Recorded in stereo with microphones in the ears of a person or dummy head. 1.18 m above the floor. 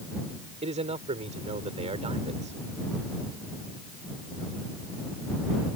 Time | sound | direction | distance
0.6 | a man speaking | 30° right (ahead or behind) | ?